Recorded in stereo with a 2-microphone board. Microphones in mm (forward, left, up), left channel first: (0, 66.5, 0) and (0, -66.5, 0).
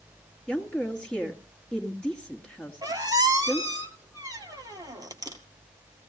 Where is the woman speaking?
10° left (ahead or behind), 2.5 m.